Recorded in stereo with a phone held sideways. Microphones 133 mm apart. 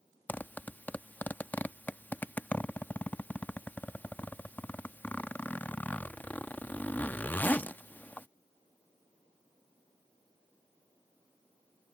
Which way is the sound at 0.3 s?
15° left (ahead or behind).